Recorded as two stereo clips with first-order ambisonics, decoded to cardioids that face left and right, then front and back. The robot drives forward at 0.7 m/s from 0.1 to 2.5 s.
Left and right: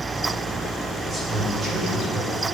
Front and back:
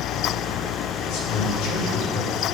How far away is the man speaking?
About 3 m.